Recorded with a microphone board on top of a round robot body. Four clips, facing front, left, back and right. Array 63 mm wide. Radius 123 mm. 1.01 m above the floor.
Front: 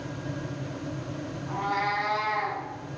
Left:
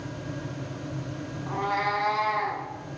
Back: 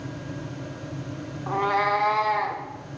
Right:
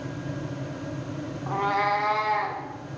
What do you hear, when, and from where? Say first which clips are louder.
1.5 s a cat meowing: right 3 dB, back 6 dB; 150° right, 1.5 m; by 2.6 s 140° right, 2 m